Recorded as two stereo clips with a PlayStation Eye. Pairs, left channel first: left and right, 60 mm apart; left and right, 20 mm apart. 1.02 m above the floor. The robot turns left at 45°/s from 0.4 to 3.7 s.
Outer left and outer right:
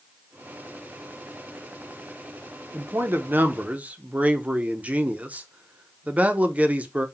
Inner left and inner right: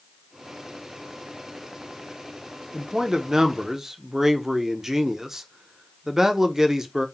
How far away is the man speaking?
About 0.6 m.